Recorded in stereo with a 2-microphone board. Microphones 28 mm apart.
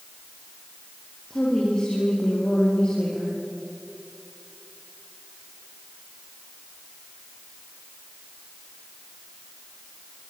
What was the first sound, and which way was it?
A woman speaking, 30° left (ahead or behind).